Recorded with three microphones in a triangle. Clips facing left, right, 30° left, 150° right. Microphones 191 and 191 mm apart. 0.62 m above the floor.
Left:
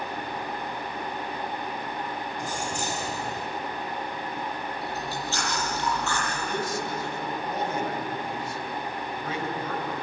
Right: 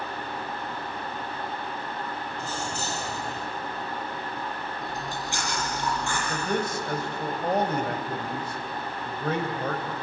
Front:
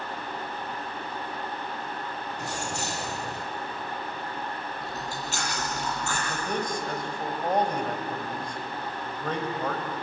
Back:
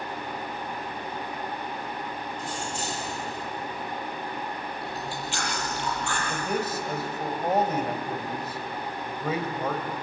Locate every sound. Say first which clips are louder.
2.4 s keys jangling: left 1 dB, front 2 dB; 15° left, 2.0 m
4.8 s chewing: left 1 dB, back 1 dB; 15° right, 7.5 m
6.3 s a man speaking: right 2 dB, back 2 dB; 65° right, 3 m